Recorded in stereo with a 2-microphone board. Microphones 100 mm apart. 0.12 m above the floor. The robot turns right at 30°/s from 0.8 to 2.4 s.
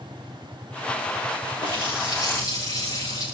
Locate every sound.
1.6 s a running tap: 60° left (ahead or behind), 9.5 m; by 3.2 s 35° left (ahead or behind), 9.5 m